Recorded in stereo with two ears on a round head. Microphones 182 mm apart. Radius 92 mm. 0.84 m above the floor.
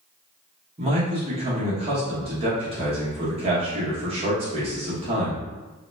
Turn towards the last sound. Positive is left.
turn(degrees=-30)  # may be behind; listen again after turning